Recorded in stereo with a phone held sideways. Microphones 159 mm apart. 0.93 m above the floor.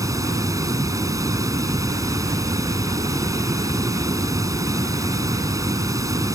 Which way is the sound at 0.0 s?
20° right (ahead or behind).